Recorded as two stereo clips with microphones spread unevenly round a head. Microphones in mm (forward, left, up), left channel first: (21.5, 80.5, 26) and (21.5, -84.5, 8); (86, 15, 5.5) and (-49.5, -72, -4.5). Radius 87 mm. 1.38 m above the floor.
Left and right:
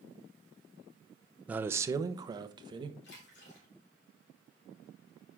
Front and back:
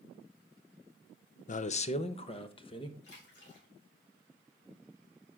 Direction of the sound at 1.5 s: 5° right.